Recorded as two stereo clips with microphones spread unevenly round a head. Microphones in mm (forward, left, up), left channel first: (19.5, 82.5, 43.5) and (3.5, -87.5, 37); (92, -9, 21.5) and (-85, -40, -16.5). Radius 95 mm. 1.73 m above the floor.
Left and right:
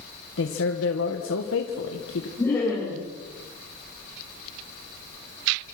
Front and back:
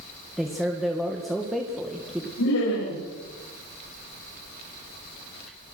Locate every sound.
0.4 s a man speaking: 100° left, 2 m
2.4 s laughter: 5° left, 8 m